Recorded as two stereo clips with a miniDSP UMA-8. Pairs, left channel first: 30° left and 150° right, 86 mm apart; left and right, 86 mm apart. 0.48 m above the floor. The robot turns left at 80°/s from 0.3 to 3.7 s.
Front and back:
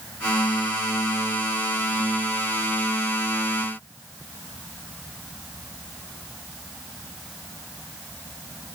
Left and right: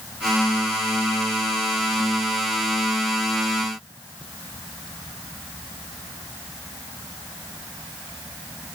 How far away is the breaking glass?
No breaking glass in this recording.